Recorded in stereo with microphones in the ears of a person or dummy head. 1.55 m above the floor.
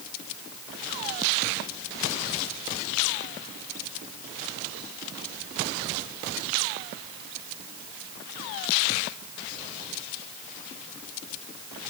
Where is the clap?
No clap in this recording.